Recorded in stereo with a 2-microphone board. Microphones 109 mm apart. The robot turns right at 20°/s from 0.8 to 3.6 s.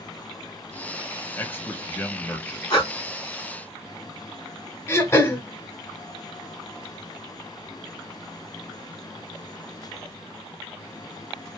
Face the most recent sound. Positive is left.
turn(degrees=25)  # may be behind; listen again after turning